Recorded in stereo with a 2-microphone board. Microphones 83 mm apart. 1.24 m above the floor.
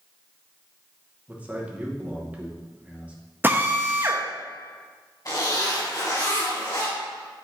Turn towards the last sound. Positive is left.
turn(degrees=50)  # may be behind; listen again after turning